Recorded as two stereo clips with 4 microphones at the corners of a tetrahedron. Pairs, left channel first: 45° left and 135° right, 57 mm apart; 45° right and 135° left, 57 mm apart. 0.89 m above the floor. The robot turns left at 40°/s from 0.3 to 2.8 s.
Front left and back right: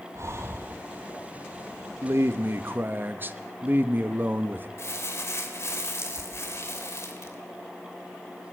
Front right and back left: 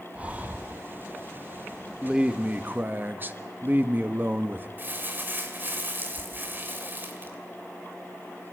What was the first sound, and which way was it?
Breathing, 160° right.